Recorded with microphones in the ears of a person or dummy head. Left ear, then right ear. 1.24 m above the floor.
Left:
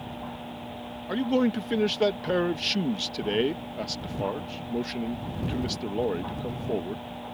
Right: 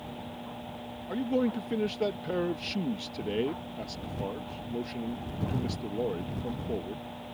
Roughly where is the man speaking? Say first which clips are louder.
Left 4 dB; centre.